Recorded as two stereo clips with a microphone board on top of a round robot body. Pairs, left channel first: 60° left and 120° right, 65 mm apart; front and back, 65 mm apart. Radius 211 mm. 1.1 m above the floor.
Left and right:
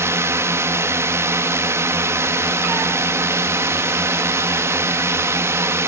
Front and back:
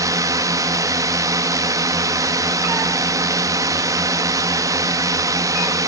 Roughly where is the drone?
Behind.